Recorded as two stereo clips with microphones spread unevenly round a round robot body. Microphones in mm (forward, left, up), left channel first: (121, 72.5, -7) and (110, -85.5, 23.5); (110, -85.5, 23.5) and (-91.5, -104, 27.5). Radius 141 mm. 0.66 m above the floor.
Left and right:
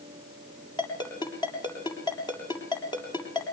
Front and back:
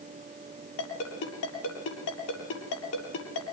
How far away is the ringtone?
About 7.5 m.